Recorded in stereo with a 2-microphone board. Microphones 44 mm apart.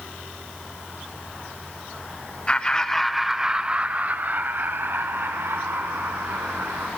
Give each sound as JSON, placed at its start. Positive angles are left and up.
{"t": 2.5, "sound": "laughter", "side_deg": 25, "distance_m": 1.1}